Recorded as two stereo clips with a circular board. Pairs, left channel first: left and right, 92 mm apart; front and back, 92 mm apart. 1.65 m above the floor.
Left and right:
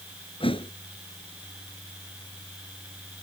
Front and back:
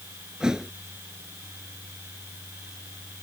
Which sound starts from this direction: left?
A thud, at 0.4 s.